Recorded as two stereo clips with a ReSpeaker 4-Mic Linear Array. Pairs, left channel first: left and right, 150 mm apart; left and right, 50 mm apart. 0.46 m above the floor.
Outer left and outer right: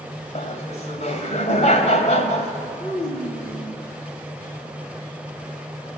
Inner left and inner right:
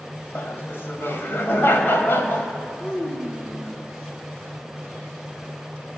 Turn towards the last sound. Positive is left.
turn(degrees=60)  # may be behind; listen again after turning